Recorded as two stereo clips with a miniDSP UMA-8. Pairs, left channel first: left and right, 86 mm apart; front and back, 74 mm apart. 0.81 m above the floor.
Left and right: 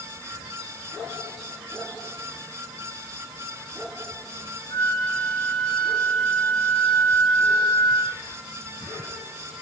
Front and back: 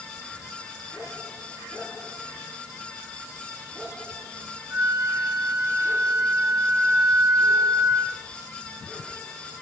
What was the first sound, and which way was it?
A flute, 125° left.